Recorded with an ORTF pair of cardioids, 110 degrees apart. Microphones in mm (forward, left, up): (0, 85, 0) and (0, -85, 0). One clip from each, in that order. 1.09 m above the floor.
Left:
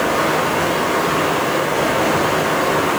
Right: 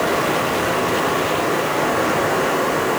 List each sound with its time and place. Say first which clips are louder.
0.0 s running water: left 2 dB; 35° left, 4 m